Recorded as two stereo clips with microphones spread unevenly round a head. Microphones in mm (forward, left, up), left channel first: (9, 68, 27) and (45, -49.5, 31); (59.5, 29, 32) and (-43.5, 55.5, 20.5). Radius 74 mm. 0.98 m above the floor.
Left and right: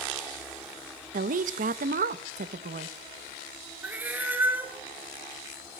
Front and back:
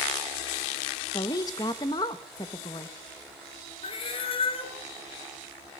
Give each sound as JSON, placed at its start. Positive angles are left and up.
{"t": 1.1, "sound": "a woman speaking", "azimuth_deg": -80, "distance_m": 0.8}
{"t": 3.8, "sound": "a cat meowing", "azimuth_deg": 0, "distance_m": 1.6}